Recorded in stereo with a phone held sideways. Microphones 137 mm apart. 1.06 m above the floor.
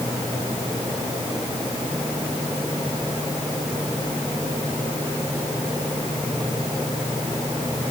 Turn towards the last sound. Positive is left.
No sound to turn to.